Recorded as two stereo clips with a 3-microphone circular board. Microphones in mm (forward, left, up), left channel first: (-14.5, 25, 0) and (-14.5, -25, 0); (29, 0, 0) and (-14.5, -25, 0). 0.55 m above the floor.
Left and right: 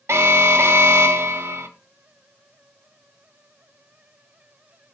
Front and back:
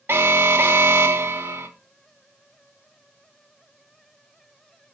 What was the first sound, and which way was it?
An alarm, 110° right.